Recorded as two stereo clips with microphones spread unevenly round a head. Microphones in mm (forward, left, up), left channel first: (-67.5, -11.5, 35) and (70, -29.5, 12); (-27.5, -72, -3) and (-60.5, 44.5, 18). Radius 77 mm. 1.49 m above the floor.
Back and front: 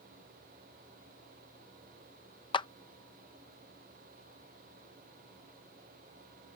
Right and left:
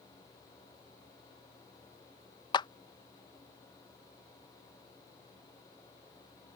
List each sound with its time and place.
2.5 s a clap: 130° right